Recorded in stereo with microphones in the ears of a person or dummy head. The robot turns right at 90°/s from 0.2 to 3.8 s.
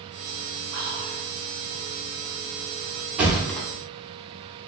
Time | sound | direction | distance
0.7 | whispering | 105° right | 1.0 m
3.2 | a thud | 15° right (ahead or behind) | 0.8 m